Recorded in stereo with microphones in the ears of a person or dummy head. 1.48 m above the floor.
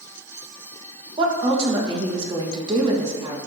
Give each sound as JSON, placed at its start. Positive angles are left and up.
{"t": 1.2, "sound": "a woman speaking", "side_deg": -30, "distance_m": 1.5}